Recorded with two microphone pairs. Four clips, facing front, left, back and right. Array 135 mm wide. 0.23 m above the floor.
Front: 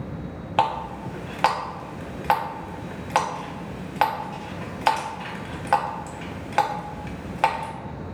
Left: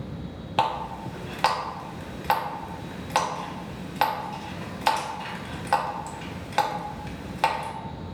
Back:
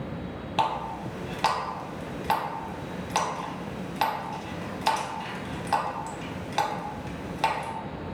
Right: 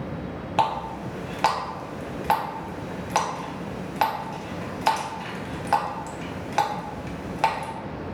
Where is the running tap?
Straight ahead, 0.7 m.